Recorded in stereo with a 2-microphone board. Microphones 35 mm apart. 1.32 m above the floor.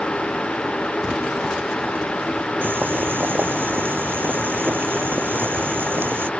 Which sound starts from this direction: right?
Boiling, at 2.6 s.